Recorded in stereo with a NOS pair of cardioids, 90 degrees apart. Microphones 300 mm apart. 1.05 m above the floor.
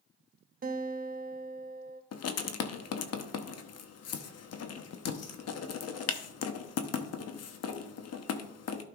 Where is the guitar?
30° right, 0.8 m.